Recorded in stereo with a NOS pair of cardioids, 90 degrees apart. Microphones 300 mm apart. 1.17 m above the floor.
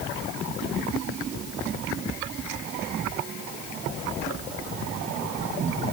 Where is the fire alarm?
No fire alarm in this recording.